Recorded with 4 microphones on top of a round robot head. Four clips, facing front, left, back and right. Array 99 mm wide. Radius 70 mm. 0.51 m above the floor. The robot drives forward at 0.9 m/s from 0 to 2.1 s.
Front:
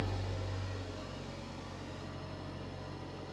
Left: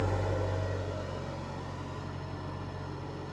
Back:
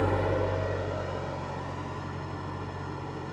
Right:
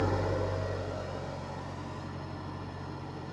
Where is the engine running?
155° right, 0.8 m; by 3.3 s 175° right, 2.5 m.